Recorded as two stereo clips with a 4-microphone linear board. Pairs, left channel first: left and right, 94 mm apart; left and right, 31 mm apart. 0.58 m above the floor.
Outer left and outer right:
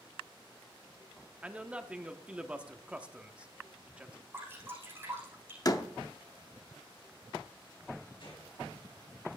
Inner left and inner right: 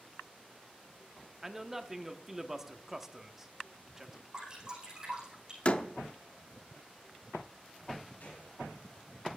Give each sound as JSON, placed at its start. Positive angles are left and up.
{"t": 1.4, "sound": "a man speaking", "side_deg": -15, "distance_m": 0.8}
{"t": 4.3, "sound": "dripping", "side_deg": -25, "distance_m": 6.0}
{"t": 5.7, "sound": "a door slam", "side_deg": 40, "distance_m": 0.6}
{"t": 8.2, "sound": "a gunshot", "side_deg": 70, "distance_m": 5.0}